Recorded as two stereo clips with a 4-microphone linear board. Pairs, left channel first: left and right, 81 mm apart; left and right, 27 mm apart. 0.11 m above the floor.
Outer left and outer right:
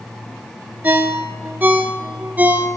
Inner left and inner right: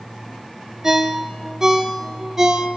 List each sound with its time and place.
0.8 s a ringtone: 25° right (ahead or behind), 0.6 m